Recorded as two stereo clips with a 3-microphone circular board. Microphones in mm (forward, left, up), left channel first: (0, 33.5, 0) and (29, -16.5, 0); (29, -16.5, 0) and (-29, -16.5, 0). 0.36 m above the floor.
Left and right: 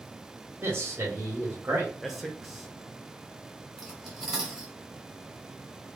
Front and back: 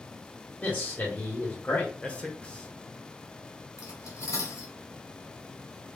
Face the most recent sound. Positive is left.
turn(degrees=20)